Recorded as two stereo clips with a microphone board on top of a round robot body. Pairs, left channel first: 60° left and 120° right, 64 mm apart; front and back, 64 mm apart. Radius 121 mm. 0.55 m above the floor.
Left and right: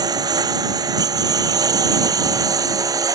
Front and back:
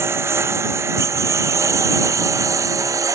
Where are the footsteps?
No footsteps in this recording.